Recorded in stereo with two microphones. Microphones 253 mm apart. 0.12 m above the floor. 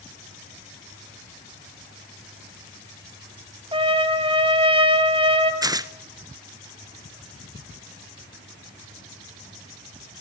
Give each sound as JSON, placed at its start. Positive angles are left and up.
{"t": 3.7, "sound": "a trumpet", "side_deg": -20, "distance_m": 1.3}
{"t": 5.6, "sound": "tearing paper", "side_deg": -15, "distance_m": 0.6}